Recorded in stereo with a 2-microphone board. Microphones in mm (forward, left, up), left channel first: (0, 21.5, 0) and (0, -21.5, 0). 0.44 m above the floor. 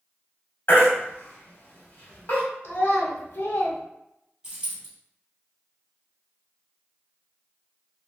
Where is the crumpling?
No crumpling in this recording.